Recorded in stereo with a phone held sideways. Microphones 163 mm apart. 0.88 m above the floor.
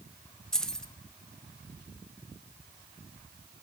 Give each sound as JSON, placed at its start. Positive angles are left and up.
{"t": 0.5, "sound": "keys jangling", "side_deg": 5, "distance_m": 0.5}